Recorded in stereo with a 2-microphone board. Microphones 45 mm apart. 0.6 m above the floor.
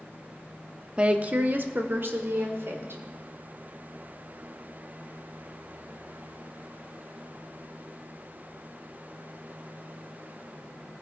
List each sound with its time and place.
1.0 s a woman speaking: 25° right (ahead or behind), 0.7 m; by 3.0 s 65° right (ahead or behind), 1.8 m